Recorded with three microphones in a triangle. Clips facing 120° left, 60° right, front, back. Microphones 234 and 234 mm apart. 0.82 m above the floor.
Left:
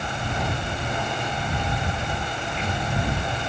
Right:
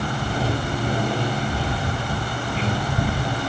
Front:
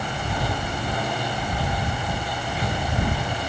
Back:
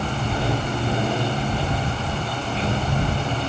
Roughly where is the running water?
Behind right.